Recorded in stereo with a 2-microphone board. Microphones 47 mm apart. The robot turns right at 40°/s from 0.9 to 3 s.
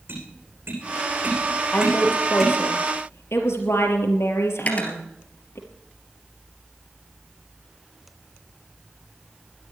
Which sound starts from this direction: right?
Tapping, at 0.1 s.